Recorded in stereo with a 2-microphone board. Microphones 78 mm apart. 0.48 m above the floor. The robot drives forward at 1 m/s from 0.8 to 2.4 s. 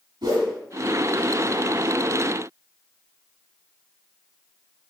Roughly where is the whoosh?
Right.